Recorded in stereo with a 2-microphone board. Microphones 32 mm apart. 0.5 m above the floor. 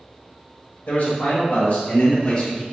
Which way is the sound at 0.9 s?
55° left (ahead or behind).